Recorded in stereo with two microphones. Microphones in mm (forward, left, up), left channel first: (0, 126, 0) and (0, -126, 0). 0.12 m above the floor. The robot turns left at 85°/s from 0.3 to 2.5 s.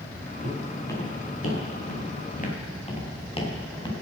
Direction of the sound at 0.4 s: 30° right (ahead or behind).